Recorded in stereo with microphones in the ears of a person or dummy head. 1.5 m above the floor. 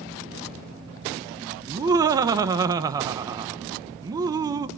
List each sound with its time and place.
1.7 s laughter: 20° right (ahead or behind), 0.9 m